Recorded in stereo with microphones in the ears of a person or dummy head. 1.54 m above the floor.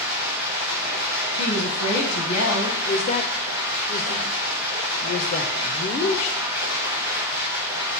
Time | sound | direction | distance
0.0 | running water | 15° right (ahead or behind) | 1.3 m
1.4 | a woman speaking | 65° left (ahead or behind) | 1.2 m
2.9 | a woman speaking | 40° left (ahead or behind) | 0.6 m